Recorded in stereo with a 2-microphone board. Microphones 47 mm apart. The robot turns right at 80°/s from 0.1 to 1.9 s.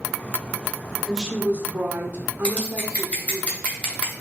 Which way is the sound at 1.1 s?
175° right.